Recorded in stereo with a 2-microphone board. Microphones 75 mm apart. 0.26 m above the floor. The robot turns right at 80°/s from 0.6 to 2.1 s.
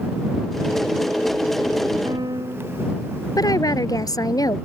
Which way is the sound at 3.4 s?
55° left (ahead or behind).